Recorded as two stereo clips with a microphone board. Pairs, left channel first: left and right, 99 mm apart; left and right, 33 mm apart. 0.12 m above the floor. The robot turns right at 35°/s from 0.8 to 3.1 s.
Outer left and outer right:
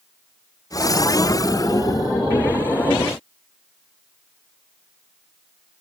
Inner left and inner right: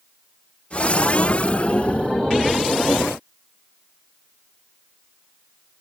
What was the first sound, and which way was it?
Only background noise.